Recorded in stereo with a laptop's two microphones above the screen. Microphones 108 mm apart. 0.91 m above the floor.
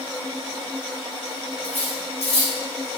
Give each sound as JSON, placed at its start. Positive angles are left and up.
{"t": 1.6, "sound": "cutlery clinking", "side_deg": 70, "distance_m": 0.8}